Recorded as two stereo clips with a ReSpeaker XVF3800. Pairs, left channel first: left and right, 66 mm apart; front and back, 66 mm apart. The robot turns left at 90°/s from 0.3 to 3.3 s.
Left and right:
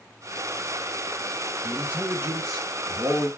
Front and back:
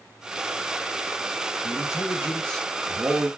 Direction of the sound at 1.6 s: Straight ahead.